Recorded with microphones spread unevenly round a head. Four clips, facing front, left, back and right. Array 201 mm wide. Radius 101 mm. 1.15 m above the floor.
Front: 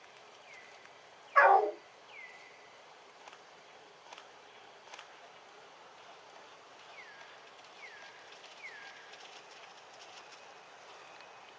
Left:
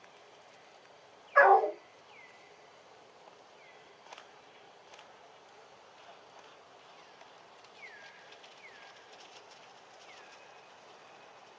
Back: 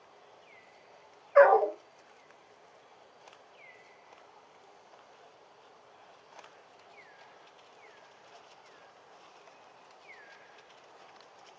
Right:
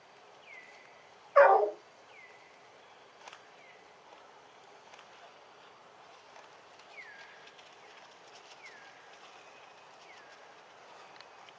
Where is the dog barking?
Straight behind, 2 m.